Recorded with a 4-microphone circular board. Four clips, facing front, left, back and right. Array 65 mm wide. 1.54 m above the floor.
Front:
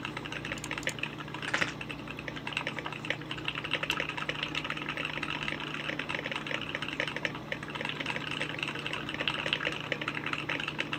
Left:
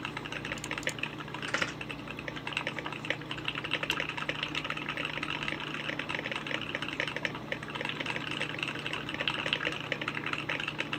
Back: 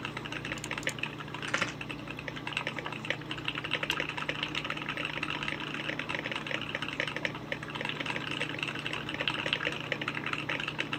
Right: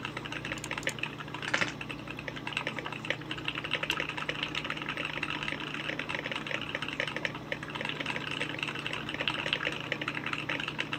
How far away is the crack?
About 2.5 m.